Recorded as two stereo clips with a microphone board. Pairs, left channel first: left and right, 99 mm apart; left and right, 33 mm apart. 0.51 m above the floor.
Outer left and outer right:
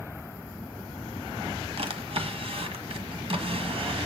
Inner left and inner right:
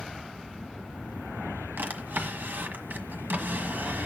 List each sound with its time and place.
1.8 s a drawer: 90° right, 1.3 m